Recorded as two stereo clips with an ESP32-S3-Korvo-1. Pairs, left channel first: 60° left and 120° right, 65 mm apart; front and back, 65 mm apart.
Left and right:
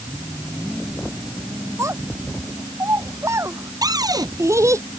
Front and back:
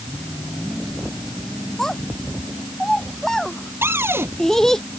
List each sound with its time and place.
1.8 s a child speaking: 80° right
3.8 s a cupboard door: 125° right